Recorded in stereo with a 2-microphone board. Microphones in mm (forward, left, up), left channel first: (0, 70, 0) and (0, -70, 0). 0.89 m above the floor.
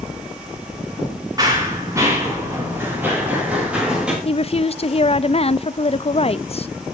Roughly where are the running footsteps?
Right.